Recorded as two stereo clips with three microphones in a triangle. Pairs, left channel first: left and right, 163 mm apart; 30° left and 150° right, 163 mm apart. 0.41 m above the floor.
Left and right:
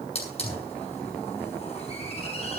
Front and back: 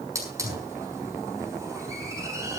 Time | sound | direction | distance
0.1 | a hiss | 140° left | 6 m